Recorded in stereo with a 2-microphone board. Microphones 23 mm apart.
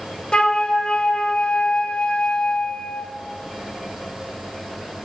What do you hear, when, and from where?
0.3 s a flute: 45° left (ahead or behind), 1.0 m